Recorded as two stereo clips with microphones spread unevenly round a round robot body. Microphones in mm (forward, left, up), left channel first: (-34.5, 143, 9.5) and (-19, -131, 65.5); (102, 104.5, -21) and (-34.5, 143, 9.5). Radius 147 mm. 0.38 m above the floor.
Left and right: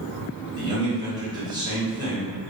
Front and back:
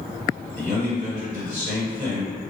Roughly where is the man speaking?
Behind.